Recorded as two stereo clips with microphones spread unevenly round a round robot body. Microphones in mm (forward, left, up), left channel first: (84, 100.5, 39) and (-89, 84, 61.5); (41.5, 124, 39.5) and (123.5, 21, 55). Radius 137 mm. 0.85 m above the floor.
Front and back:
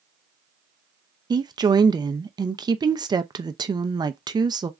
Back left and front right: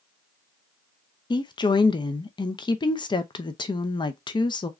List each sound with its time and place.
1.3 s a woman speaking: 120° left, 0.6 m